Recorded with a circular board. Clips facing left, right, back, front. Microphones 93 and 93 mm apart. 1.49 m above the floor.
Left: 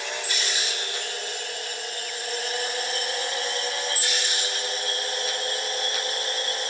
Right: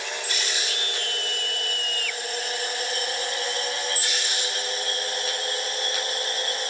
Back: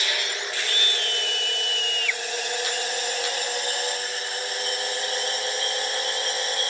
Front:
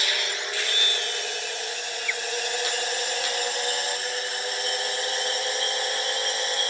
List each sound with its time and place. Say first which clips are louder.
0.7 s a scream: right 1 dB, back 1 dB; 70° right; by 2.2 s 75° right